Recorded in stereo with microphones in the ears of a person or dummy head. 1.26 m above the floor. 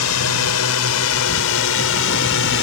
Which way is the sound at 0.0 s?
75° left (ahead or behind).